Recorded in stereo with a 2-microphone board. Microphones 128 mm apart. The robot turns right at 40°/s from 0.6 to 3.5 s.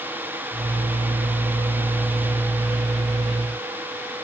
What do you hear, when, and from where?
Only background noise.